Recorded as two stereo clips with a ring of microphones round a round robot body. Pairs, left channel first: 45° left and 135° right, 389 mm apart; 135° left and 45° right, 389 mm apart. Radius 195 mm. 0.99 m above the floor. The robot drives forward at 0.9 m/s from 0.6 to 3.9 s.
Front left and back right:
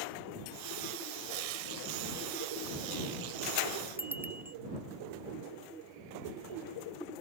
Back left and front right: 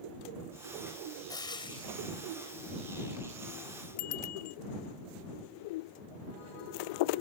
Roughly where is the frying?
Behind right.